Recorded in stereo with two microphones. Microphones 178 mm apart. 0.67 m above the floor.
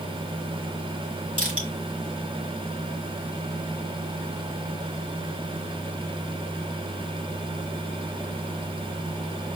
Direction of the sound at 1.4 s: 45° right (ahead or behind).